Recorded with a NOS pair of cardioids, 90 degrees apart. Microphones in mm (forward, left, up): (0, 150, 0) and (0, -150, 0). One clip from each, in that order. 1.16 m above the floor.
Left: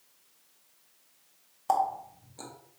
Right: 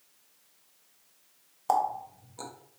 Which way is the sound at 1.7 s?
10° right.